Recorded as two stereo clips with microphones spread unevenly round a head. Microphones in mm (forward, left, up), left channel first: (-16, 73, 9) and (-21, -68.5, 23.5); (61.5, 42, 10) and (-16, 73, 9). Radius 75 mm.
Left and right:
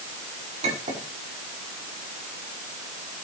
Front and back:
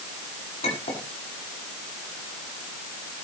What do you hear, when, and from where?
0.6 s a clink: 40° right, 7 m